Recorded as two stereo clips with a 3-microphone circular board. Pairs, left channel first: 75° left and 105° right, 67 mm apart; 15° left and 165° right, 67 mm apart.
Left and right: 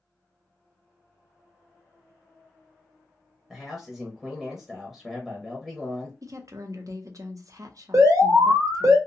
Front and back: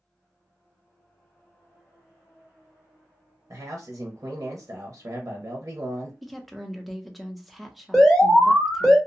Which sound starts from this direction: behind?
A man speaking, at 3.5 s.